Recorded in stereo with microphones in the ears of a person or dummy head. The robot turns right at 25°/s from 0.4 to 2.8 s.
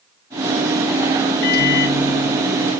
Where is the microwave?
55° left, 1.1 m; by 2.7 s 85° left, 1.1 m.